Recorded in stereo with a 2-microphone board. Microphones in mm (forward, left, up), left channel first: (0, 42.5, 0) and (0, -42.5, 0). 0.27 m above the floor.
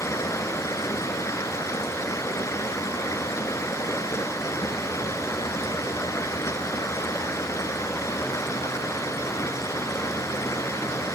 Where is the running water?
35° left (ahead or behind), 0.7 m.